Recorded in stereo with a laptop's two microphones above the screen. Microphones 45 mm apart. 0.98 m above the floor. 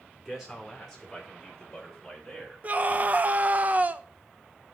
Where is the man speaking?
5° right (ahead or behind), 4 m; by 3.6 s 10° left (ahead or behind), 5 m.